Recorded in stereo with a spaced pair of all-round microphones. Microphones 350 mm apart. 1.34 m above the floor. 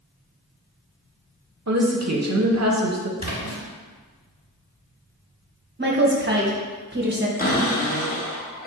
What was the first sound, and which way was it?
A woman speaking, 50° right (ahead or behind).